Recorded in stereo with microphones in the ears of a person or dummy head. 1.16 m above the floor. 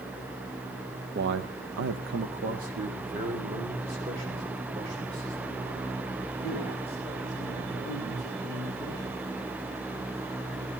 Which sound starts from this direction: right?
A man speaking, at 1.1 s.